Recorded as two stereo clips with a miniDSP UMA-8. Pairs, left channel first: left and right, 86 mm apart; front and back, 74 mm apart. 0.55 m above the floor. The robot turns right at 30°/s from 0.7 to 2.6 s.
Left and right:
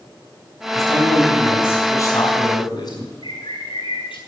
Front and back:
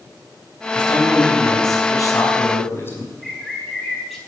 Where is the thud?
No thud in this recording.